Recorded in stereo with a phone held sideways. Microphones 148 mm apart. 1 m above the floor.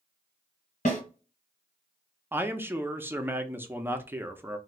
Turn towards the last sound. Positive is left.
turn(degrees=-15)  # may be behind; listen again after turning